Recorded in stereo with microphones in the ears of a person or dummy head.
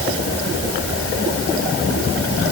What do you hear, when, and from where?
Only background noise.